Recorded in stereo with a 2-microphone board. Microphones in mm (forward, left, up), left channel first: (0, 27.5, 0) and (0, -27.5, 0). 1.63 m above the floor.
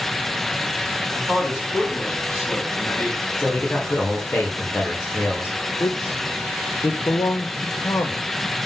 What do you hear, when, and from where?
1.1 s a man speaking: 50° left (ahead or behind), 4 m
3.4 s a man speaking: 45° left (ahead or behind), 2 m
5.8 s a man speaking: 75° left (ahead or behind), 0.8 m